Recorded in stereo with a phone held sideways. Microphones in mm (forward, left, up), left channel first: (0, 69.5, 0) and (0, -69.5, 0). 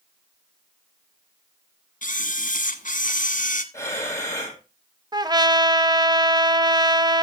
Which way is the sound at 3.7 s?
20° left (ahead or behind).